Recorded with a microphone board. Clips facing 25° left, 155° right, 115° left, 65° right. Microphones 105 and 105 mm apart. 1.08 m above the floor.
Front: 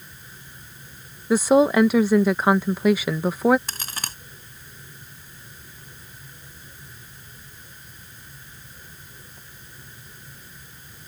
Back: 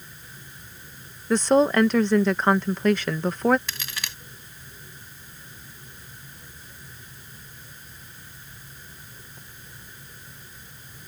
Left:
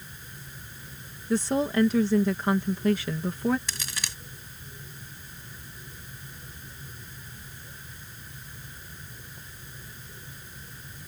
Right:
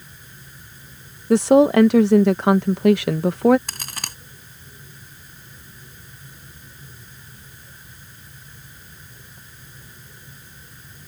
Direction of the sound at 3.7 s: 25° right.